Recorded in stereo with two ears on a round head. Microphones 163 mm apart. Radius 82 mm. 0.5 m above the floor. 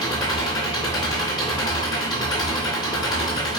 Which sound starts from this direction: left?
An engine running, at 0.0 s.